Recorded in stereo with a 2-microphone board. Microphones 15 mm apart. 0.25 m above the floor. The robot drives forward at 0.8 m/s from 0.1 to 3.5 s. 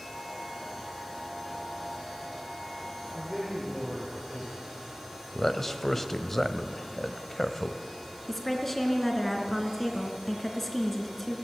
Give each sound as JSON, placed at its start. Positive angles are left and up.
{"t": 3.1, "sound": "a man speaking", "side_deg": -20, "distance_m": 6.5}
{"t": 5.3, "sound": "a man speaking", "side_deg": 20, "distance_m": 1.1}
{"t": 8.3, "sound": "a woman speaking", "side_deg": 15, "distance_m": 3.0}